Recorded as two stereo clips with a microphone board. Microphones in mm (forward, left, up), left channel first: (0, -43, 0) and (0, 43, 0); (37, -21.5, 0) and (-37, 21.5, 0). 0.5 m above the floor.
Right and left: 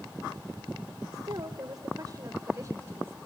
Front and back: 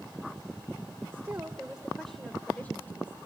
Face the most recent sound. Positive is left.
turn(degrees=30)